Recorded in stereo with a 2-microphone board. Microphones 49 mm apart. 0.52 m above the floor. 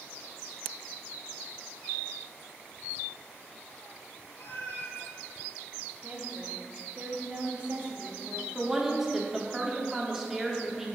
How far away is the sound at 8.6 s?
About 0.9 m.